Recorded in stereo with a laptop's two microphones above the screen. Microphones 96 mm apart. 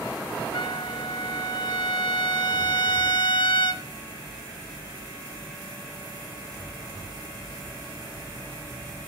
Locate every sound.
0.5 s a trumpet: 65° left (ahead or behind), 1.5 m